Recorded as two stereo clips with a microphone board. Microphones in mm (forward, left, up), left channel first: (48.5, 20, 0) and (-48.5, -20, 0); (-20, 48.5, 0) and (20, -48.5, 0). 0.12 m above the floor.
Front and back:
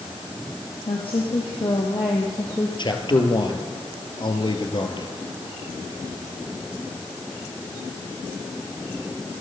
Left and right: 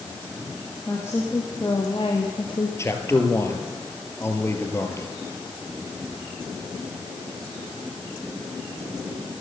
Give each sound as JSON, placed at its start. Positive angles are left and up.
{"t": 0.9, "sound": "a woman speaking", "azimuth_deg": 45, "distance_m": 4.0}
{"t": 2.8, "sound": "a man speaking", "azimuth_deg": 55, "distance_m": 3.0}